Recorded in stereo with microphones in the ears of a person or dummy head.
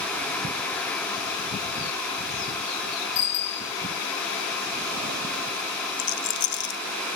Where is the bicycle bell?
30° left (ahead or behind), 2 m.